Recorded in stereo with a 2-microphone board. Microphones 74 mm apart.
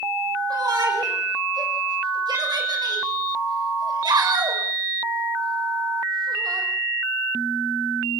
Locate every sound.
0.5 s a shout: 70° right (ahead or behind), 6 m; by 6.7 s 65° right (ahead or behind), 6.5 m